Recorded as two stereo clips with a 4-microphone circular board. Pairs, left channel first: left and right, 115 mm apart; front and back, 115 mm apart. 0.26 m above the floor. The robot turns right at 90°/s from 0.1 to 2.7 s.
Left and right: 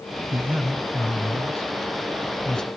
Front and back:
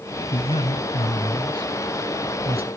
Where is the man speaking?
35° right, 1.9 m; by 2.7 s straight behind, 1.9 m.